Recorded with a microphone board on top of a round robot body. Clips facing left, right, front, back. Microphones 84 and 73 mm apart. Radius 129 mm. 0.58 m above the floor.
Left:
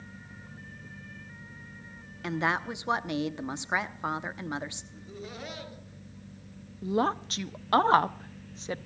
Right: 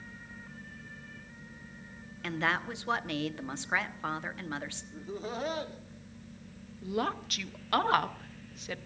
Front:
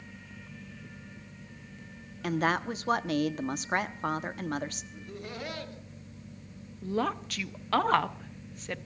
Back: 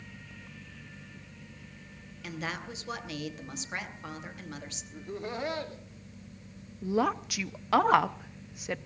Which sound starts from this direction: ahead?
A woman speaking, at 2.2 s.